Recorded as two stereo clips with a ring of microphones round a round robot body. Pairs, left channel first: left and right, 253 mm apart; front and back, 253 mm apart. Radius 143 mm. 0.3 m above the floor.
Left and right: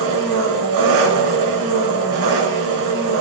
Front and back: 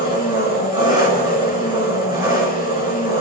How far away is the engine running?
About 4 m.